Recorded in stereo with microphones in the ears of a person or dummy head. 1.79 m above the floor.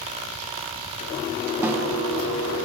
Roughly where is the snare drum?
Centre.